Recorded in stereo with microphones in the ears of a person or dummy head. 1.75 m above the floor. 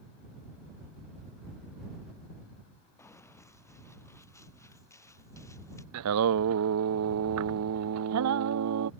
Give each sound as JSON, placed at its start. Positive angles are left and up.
{"t": 3.0, "sound": "running footsteps", "side_deg": 10}
{"t": 5.9, "sound": "singing", "side_deg": -80}